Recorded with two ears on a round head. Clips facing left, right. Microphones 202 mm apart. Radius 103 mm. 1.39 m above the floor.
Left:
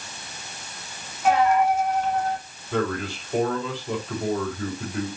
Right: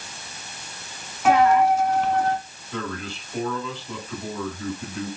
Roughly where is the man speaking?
Left.